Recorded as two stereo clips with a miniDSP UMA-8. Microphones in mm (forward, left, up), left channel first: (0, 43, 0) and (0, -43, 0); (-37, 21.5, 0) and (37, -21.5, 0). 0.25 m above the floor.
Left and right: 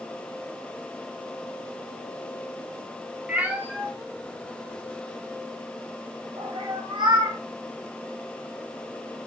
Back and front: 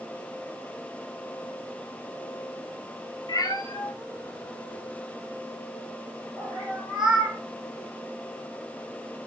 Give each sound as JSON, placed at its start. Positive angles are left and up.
{"t": 3.3, "sound": "a cat meowing", "azimuth_deg": -170, "distance_m": 1.2}